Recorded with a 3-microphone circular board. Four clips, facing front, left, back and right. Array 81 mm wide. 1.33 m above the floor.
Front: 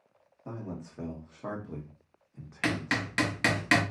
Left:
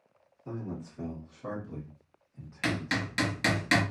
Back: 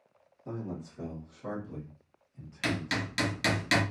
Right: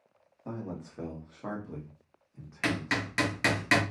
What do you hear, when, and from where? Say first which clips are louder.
0.5 s a man speaking: even, back 1 dB; 60° right, 1.6 m; by 3.6 s 15° left, 1.1 m
2.6 s hammering: right 1 dB, front 2 dB; 25° right, 0.9 m